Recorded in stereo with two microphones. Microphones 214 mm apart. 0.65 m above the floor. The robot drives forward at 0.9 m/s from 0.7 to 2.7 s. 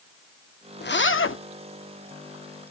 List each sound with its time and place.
0.8 s a zipper: 50° left (ahead or behind), 0.7 m; by 1.4 s 70° left (ahead or behind), 0.6 m